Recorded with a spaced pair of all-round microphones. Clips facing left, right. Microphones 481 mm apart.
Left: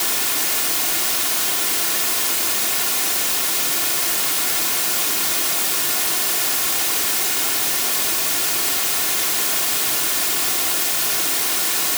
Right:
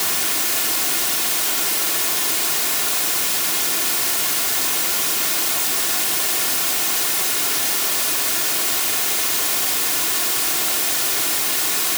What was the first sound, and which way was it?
Only background noise.